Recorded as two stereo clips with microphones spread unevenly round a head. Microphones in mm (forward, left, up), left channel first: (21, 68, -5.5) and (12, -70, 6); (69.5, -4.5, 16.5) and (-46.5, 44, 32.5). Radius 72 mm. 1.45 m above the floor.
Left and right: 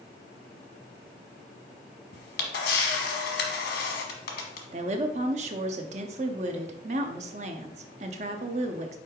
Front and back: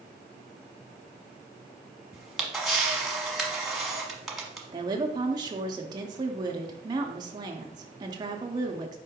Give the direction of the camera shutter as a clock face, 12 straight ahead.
10 o'clock.